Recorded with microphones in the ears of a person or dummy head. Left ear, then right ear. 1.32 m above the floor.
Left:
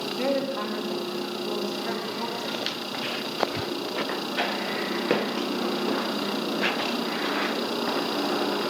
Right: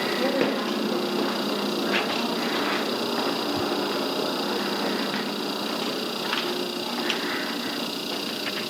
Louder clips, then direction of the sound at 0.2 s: Left 1 dB; 25° left (ahead or behind).